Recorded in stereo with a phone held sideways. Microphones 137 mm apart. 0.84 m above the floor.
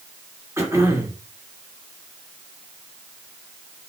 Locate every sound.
0.6 s throat clearing: 20° right (ahead or behind), 2.5 m